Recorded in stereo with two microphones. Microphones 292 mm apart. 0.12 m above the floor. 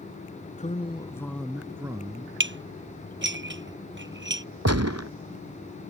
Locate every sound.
0.6 s a man speaking: 25° left (ahead or behind); by 2.3 s 20° right (ahead or behind)
2.4 s dishes clattering: 40° right (ahead or behind)
4.7 s a gunshot: 60° right (ahead or behind)